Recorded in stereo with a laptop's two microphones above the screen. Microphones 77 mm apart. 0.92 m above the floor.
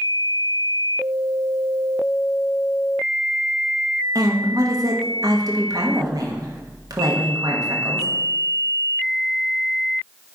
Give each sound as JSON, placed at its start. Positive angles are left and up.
{"t": 4.2, "sound": "a woman speaking", "side_deg": -55, "distance_m": 1.4}